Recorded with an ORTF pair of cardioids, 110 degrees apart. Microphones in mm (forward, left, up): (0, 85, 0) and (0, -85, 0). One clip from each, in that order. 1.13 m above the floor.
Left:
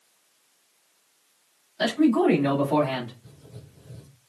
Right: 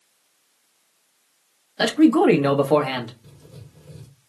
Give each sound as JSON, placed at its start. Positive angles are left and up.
{"t": 1.8, "sound": "a man speaking", "azimuth_deg": -55, "distance_m": 1.1}
{"t": 3.2, "sound": "writing", "azimuth_deg": -40, "distance_m": 1.3}